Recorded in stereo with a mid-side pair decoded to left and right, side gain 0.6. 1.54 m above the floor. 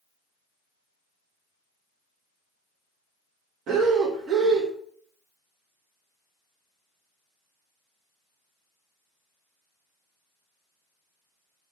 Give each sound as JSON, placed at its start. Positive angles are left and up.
{"t": 3.7, "sound": "breathing", "azimuth_deg": -50, "distance_m": 1.5}